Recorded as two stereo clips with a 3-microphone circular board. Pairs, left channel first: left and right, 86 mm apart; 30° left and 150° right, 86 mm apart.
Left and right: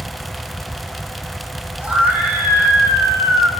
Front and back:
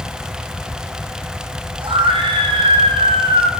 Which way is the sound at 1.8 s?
165° right.